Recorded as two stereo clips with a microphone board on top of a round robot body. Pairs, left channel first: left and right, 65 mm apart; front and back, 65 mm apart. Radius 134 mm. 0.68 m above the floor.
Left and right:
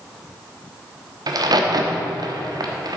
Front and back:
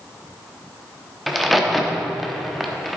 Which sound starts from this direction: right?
A crack, at 1.3 s.